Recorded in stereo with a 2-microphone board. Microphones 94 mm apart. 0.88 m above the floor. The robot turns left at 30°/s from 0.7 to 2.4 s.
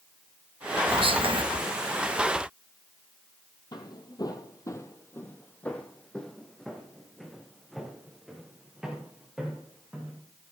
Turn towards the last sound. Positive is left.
turn(degrees=-10)  # may be behind; listen again after turning